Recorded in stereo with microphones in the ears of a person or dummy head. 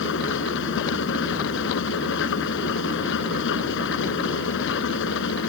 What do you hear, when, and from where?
0.0 s an engine running: 75° left (ahead or behind)